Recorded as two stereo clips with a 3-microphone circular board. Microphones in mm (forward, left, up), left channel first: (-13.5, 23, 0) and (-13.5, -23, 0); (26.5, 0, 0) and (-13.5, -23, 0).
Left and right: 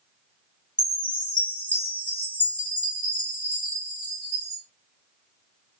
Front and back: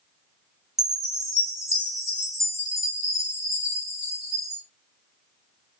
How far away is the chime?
About 1.8 m.